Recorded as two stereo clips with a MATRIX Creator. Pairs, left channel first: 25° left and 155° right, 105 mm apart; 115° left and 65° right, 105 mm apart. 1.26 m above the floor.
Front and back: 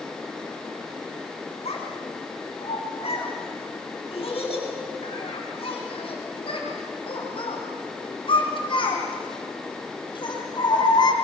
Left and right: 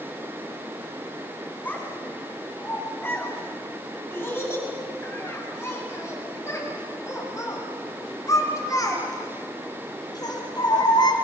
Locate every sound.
1.6 s a child speaking: 40° left, 10 m; by 11.1 s 70° left, 4.5 m